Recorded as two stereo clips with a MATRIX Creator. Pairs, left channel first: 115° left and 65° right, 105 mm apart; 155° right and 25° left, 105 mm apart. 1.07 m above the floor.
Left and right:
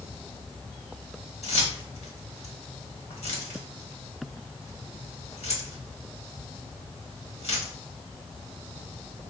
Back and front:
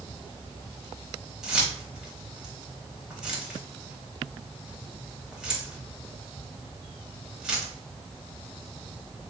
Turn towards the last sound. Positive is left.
turn(degrees=105)